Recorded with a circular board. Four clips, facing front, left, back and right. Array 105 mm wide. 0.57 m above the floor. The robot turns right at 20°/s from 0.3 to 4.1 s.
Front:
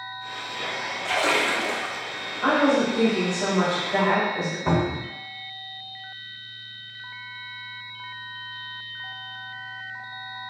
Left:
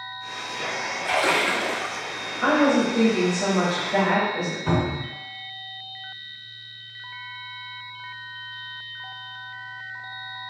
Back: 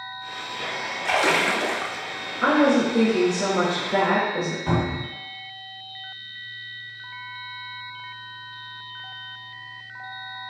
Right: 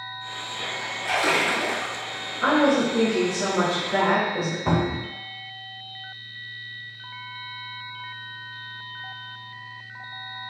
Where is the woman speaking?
170° left, 1.2 m; by 4.6 s 155° right, 1.2 m.